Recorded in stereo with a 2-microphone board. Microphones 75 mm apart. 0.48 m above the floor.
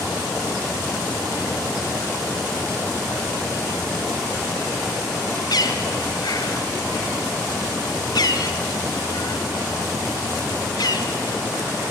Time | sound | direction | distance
5.5 | a bird | 65° left (ahead or behind) | 1.7 m